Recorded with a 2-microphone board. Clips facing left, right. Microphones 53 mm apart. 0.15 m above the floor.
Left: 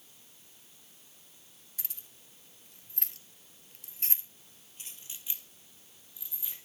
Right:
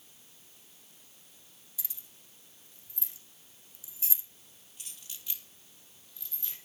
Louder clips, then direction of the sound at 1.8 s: Left 1 dB; 55° left (ahead or behind).